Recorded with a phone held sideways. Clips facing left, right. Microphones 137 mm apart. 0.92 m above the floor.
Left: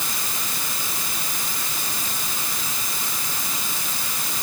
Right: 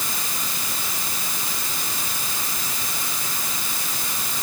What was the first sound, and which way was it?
Only background noise.